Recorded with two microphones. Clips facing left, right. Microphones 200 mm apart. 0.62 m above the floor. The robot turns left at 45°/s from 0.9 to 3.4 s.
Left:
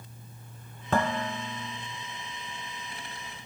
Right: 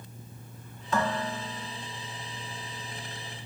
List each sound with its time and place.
0.9 s dishes clattering: 120° left, 1.2 m; by 1.8 s 80° left, 1.2 m